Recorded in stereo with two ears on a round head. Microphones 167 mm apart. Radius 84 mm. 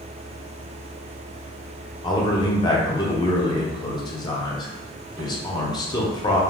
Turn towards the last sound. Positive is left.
turn(degrees=25)  # may be behind; listen again after turning